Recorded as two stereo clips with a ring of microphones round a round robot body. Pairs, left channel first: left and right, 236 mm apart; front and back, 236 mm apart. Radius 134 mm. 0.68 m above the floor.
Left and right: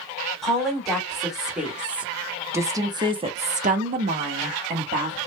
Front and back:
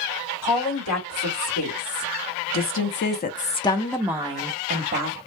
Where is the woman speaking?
Straight ahead, 1.9 m; by 5.2 s 145° right, 0.9 m.